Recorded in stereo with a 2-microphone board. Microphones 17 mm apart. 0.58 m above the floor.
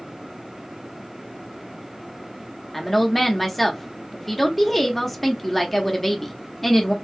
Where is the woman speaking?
15° left (ahead or behind), 0.7 m.